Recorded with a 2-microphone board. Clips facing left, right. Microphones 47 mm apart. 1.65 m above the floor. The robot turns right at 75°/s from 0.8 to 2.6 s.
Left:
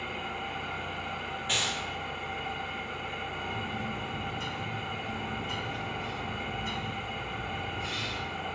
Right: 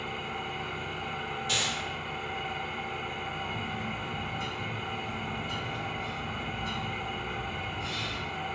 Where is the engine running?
165° left, 1.6 m; by 8.6 s 60° right, 1.6 m.